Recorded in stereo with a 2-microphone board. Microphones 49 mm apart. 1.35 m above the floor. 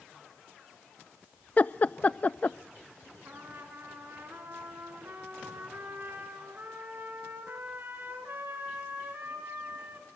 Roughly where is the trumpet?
Right.